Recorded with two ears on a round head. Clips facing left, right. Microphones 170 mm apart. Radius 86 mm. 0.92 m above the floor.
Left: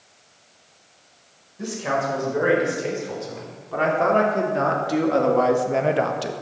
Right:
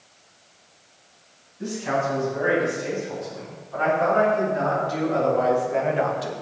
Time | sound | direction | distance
1.6 | a man speaking | 75° left (ahead or behind) | 5 m